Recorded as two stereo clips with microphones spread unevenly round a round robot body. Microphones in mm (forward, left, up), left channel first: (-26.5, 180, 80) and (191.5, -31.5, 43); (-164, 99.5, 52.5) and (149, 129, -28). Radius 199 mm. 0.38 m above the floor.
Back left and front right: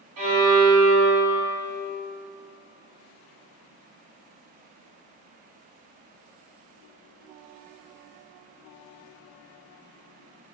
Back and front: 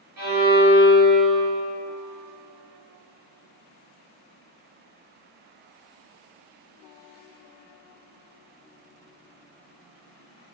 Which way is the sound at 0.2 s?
40° right.